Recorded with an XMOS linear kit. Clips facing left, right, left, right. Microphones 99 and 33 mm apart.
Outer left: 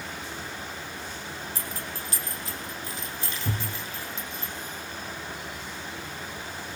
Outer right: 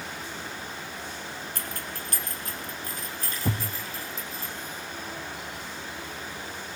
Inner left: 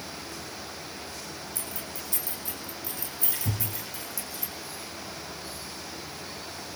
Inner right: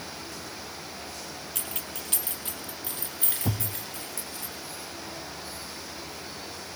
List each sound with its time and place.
1.6 s keys jangling: 60° right (ahead or behind), 3.5 m; by 4.5 s 40° right (ahead or behind), 6 m
3.5 s a thud: 65° right (ahead or behind), 3 m